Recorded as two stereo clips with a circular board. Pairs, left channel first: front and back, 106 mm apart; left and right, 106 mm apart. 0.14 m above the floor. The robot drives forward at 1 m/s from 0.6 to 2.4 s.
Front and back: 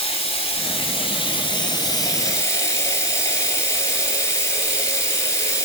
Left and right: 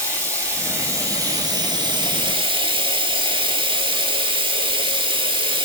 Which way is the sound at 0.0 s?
30° right.